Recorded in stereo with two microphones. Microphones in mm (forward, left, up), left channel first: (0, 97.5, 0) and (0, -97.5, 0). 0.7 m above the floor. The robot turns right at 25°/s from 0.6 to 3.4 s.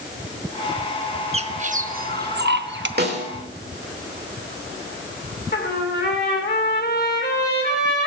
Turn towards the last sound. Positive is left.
turn(degrees=55)  # may be behind; listen again after turning